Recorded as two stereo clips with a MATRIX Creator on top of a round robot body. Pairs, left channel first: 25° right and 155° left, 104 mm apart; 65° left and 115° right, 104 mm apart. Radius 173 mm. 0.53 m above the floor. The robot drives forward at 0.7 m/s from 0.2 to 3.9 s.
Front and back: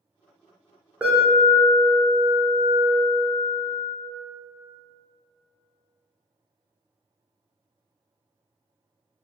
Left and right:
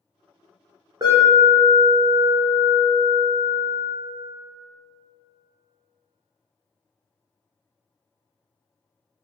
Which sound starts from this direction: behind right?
An alarm, at 1.0 s.